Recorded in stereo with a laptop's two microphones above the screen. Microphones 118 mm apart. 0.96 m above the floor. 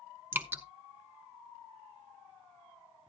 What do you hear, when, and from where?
0.3 s dripping: 20° right (ahead or behind), 0.6 m